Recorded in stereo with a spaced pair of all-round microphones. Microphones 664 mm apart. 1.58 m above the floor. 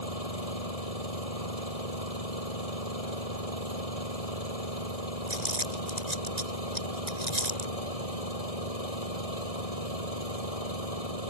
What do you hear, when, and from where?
0.0 s an engine running: 60° left (ahead or behind)
5.3 s crumpling: 80° right